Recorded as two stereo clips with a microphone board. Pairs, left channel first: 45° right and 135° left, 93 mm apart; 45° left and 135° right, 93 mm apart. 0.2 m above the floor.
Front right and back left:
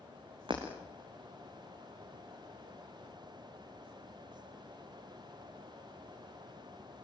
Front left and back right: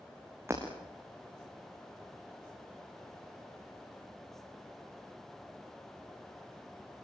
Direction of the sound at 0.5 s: 165° left.